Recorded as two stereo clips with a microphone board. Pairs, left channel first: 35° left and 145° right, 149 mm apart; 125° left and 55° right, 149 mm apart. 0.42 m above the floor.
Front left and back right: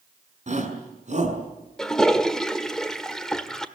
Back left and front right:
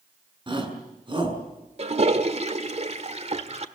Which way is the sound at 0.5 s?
110° right.